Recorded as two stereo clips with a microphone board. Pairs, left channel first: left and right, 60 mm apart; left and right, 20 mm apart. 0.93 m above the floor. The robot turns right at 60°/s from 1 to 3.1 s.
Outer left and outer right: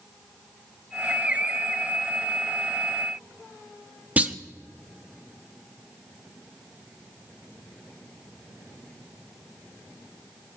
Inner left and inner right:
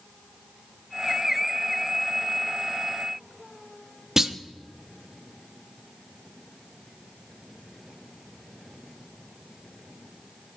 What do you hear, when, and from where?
4.2 s a clunk: 25° right (ahead or behind), 0.8 m